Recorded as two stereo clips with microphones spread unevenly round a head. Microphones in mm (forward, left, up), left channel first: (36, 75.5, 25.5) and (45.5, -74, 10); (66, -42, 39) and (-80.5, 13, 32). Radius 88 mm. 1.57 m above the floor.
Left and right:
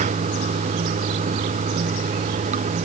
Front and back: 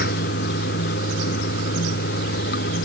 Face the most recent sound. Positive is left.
turn(degrees=-45)